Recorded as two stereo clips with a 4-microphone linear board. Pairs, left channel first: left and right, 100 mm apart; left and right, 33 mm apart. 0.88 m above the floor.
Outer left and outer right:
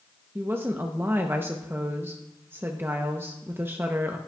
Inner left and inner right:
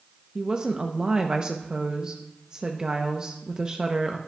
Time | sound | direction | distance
0.3 | a woman speaking | 20° right (ahead or behind) | 0.6 m